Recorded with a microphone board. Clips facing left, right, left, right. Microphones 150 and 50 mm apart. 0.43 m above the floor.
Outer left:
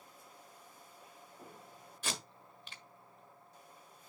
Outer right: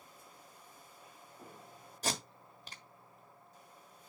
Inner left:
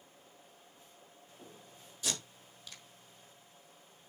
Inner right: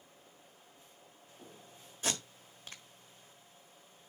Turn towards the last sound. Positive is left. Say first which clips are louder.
# outer right 5 dB, inner right 3 dB
turn(degrees=-40)  # may be behind; listen again after turning